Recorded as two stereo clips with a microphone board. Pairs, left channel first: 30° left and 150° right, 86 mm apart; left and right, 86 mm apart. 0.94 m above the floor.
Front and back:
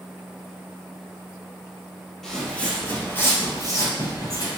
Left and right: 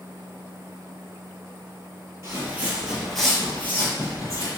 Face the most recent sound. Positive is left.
turn(degrees=60)